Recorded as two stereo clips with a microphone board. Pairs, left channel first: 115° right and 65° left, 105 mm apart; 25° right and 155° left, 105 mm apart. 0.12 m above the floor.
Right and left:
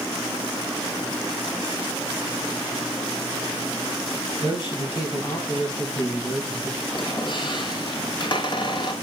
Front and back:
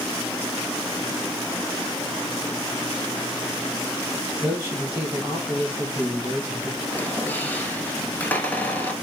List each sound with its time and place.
4.4 s a man speaking: 130° right, 3 m
6.9 s a squeak: 95° right, 1.0 m